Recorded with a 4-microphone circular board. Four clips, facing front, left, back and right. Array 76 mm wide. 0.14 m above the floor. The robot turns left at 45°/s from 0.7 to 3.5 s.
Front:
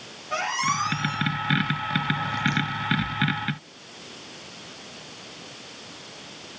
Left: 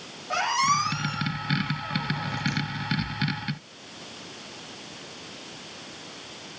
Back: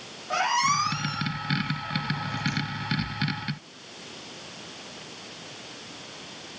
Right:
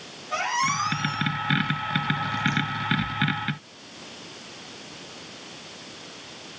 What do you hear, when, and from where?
0.3 s a squeak: 140° left, 3.5 m; by 2.6 s 50° left, 3.5 m